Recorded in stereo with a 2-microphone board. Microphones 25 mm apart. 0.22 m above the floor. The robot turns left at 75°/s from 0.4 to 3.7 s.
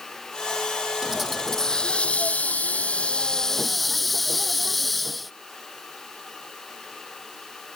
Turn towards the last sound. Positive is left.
turn(degrees=0)